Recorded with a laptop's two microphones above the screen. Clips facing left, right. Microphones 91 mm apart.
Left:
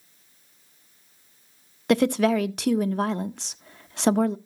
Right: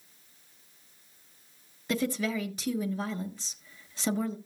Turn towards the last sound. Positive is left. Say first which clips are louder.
# left 10 dB
turn(degrees=65)  # may be behind; listen again after turning